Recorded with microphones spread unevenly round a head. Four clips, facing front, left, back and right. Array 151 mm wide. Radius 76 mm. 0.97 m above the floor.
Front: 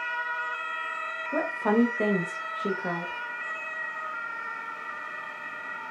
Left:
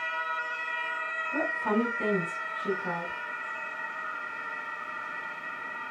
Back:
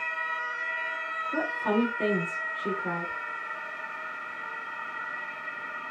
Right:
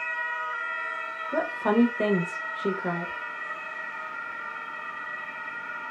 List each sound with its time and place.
1.3 s a woman speaking: 50° right, 1.0 m